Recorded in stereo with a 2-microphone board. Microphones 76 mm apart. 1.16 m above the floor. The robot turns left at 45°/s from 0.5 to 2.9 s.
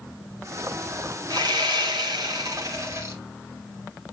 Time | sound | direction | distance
1.3 | sawing | 65° right | 1.9 m